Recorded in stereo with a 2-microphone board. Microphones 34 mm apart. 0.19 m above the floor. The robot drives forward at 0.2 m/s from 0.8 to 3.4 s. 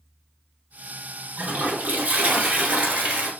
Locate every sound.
1.4 s a toilet flushing: 50° right (ahead or behind), 1.1 m; by 3.3 s 40° right (ahead or behind), 1.3 m